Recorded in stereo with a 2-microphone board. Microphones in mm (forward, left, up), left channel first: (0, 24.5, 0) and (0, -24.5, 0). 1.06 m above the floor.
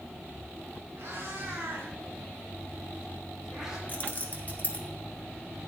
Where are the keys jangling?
35° left (ahead or behind), 1.8 m.